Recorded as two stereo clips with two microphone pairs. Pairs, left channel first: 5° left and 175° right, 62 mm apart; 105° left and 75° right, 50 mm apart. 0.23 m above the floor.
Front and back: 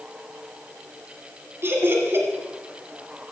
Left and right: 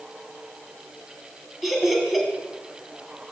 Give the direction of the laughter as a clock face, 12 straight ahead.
5 o'clock.